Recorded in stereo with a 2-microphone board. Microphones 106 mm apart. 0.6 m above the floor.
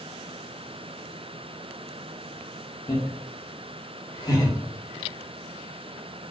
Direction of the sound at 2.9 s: 50° left (ahead or behind).